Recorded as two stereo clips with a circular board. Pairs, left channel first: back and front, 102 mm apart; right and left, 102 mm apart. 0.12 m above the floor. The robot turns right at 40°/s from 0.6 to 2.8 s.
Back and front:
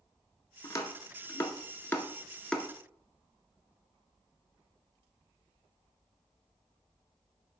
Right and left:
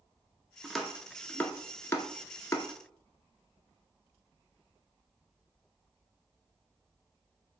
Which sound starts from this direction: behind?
Chopping, at 0.6 s.